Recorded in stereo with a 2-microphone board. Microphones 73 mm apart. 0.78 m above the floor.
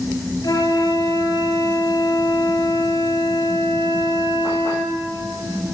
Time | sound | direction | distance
0.4 | a flute | 65° left (ahead or behind) | 2.5 m